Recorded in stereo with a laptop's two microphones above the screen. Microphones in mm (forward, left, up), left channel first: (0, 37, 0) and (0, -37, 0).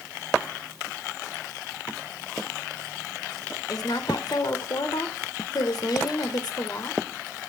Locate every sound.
3.7 s a woman speaking: 65° left (ahead or behind), 3 m